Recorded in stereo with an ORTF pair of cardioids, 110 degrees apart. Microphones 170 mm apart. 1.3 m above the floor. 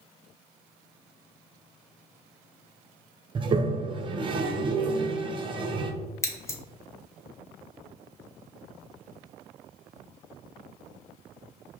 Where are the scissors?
15° left, 1.0 m.